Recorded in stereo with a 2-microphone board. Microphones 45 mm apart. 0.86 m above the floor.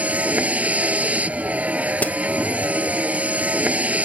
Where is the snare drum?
40° left (ahead or behind).